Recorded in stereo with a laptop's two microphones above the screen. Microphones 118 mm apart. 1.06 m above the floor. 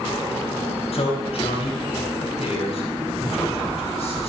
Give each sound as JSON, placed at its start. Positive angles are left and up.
{"t": 0.9, "sound": "a man speaking", "side_deg": 70, "distance_m": 5.0}